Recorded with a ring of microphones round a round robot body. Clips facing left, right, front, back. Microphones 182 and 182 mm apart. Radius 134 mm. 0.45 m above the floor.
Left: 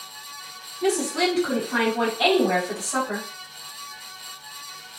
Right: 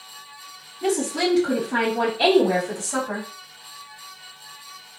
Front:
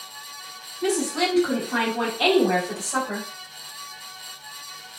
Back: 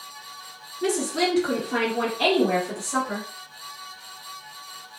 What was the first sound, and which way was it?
A woman speaking, 175° right.